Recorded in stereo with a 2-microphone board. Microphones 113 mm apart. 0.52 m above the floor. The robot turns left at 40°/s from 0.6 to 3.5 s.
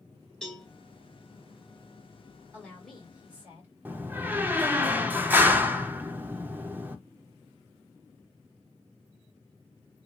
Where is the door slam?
15° right (ahead or behind), 0.5 m.